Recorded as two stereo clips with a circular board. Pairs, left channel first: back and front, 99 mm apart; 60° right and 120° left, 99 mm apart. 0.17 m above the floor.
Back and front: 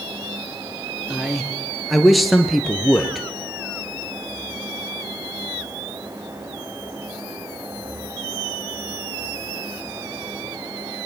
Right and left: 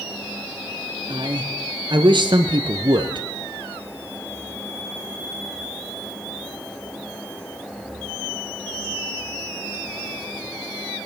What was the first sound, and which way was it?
A man speaking, 90° left.